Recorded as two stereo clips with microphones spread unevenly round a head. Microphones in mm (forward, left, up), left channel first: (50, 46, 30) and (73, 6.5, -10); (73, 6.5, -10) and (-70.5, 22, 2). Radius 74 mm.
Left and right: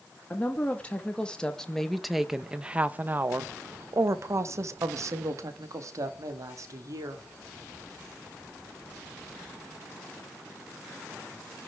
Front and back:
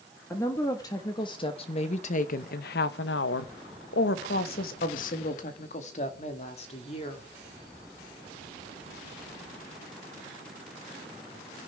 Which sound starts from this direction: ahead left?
A woman speaking, at 0.3 s.